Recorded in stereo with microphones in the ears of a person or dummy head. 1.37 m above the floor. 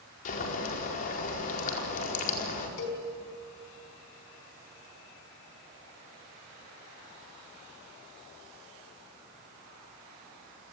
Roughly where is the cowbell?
Left.